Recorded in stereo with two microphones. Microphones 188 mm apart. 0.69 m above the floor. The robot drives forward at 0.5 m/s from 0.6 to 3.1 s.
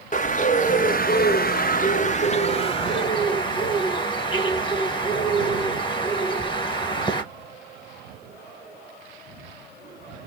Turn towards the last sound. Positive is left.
turn(degrees=25)  # may be behind; listen again after turning